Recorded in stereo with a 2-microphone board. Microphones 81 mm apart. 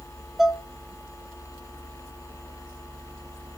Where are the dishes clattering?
5° right (ahead or behind), 0.6 m.